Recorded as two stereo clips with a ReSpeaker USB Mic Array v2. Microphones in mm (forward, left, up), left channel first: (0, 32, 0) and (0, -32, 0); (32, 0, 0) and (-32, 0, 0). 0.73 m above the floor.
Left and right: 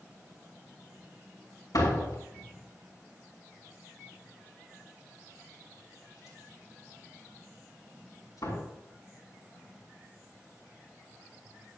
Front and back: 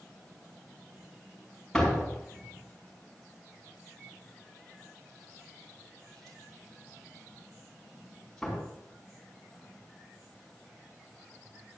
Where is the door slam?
85° left, 6 m.